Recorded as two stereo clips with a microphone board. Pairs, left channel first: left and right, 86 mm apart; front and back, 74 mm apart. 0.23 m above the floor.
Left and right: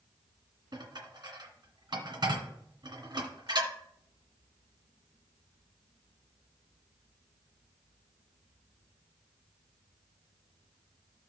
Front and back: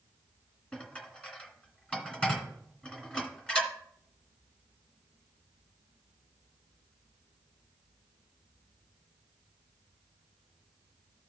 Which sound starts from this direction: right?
Dishes clattering, at 0.7 s.